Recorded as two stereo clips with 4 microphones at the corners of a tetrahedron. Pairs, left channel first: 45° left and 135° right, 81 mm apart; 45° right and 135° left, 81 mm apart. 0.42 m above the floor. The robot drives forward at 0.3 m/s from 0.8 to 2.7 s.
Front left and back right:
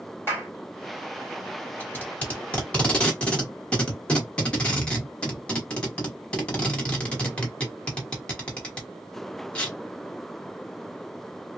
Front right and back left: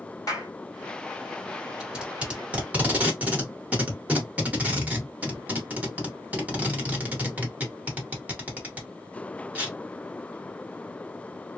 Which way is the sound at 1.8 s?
65° left.